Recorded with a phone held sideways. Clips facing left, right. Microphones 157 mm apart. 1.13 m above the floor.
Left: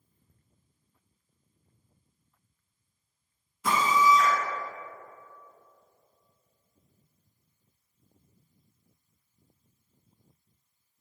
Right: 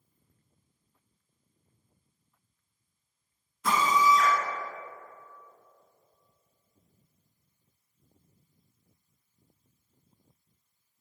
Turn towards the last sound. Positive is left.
turn(degrees=5)  # may be behind; listen again after turning